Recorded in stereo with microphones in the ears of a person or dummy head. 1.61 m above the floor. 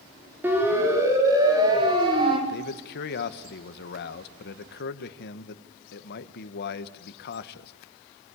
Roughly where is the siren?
Centre.